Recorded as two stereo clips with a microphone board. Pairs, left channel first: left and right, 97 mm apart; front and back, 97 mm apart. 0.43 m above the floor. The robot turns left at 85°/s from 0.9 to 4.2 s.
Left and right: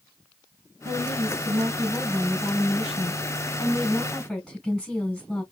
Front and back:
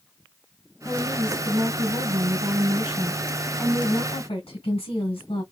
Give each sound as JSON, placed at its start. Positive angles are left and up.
{"t": 0.8, "sound": "a woman speaking", "azimuth_deg": -65, "distance_m": 3.5}